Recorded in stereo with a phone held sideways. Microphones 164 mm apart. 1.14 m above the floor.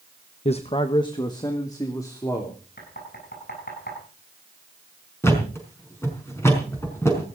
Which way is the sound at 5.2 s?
15° left (ahead or behind).